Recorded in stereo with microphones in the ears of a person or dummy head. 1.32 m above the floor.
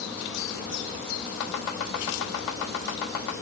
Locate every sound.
1.4 s chopping: 70° left (ahead or behind), 2 m